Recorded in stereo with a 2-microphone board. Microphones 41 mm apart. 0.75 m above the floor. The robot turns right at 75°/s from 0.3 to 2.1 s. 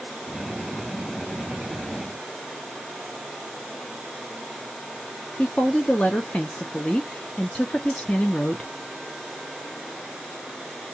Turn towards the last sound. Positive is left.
turn(degrees=25)  # may be behind; listen again after turning